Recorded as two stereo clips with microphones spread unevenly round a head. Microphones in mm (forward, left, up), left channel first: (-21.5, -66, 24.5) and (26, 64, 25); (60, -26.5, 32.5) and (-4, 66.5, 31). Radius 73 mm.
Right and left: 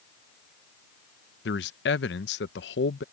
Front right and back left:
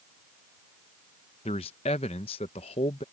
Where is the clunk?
I don't hear a clunk.